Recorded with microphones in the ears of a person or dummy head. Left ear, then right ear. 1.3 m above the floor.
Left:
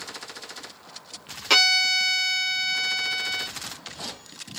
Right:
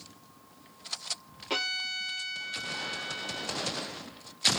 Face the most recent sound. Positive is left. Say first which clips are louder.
# left 13 dB
turn(degrees=55)  # may be behind; listen again after turning